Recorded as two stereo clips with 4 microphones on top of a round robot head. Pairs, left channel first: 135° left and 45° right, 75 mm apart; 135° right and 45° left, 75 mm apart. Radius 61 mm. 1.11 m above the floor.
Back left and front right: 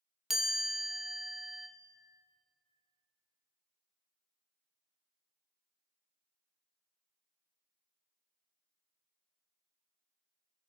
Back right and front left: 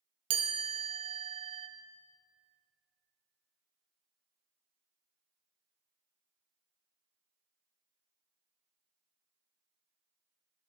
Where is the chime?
35° left, 0.6 m.